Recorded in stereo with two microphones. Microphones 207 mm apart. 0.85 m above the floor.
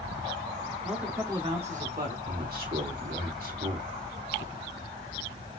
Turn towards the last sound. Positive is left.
turn(degrees=-45)  # may be behind; listen again after turning